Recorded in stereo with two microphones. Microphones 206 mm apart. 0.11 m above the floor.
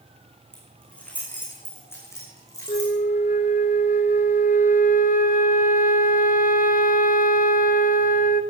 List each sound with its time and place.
0.5 s keys jangling: 5° left (ahead or behind), 6.5 m; by 3.0 s 20° left (ahead or behind), 6.5 m
2.7 s a flute: 45° left (ahead or behind), 1.0 m